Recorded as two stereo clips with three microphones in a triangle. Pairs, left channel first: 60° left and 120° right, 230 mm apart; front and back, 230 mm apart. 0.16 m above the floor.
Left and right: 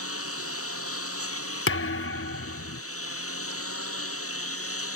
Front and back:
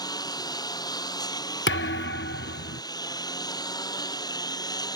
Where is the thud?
35° left.